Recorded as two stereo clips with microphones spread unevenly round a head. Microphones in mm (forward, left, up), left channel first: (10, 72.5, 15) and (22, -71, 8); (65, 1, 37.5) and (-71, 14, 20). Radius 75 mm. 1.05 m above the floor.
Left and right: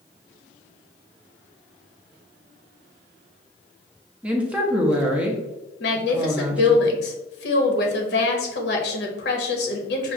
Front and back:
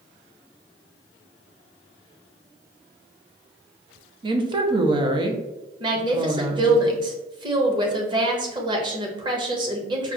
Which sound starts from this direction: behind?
A woman speaking, at 4.2 s.